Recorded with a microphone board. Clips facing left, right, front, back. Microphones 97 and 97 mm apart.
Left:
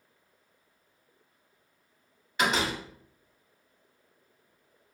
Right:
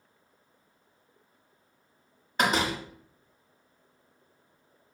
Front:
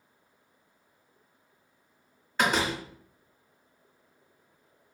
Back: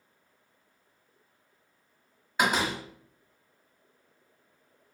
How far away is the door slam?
About 0.9 m.